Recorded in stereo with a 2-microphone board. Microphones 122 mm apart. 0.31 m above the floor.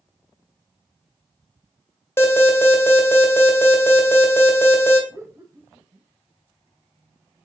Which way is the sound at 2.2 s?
20° left (ahead or behind).